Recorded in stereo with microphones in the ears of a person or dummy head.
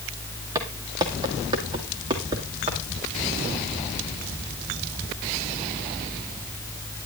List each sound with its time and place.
0.6 s footsteps: 20° right (ahead or behind), 2 m; by 2.8 s 30° right (ahead or behind), 3 m